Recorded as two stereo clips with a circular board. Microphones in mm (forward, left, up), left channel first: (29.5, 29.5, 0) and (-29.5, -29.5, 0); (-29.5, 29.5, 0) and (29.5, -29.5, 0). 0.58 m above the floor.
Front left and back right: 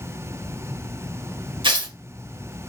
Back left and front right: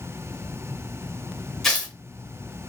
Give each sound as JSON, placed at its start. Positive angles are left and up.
{"t": 1.6, "sound": "tearing paper", "azimuth_deg": -140, "distance_m": 0.7}